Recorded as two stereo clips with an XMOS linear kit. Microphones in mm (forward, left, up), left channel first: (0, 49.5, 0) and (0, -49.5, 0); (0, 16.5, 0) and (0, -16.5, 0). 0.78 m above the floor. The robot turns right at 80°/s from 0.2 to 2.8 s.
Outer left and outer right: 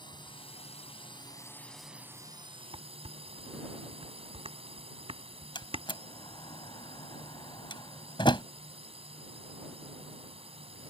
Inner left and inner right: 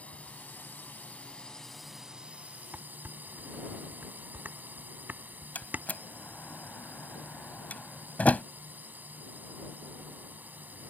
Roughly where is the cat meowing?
I don't hear a cat meowing.